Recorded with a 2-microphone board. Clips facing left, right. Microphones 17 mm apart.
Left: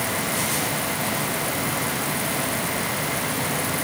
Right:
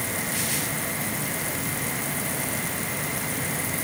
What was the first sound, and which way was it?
Only background noise.